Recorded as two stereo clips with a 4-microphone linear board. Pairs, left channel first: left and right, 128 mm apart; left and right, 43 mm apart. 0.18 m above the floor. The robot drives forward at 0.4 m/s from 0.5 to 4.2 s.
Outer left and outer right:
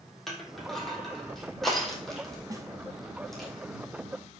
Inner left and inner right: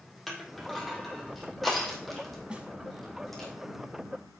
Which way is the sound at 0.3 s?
Centre (ahead or behind).